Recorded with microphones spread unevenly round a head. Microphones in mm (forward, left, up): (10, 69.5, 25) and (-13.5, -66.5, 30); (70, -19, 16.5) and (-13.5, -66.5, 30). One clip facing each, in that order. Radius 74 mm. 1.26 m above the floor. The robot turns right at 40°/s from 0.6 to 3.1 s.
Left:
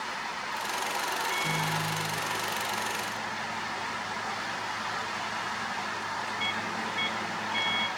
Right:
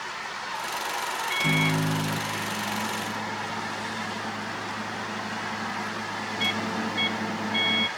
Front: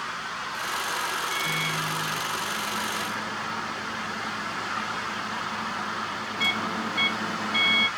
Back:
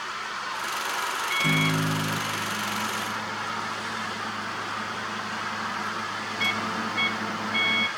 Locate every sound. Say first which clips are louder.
1.3 s a microwave: right 5 dB, back 4 dB; 130° right, 0.8 m; by 7.9 s 55° right, 0.8 m